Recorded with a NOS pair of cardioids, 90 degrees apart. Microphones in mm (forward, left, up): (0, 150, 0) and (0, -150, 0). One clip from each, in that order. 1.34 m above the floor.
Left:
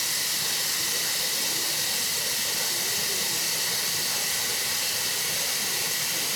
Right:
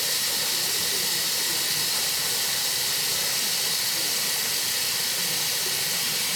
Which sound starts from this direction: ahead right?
Running water, at 0.0 s.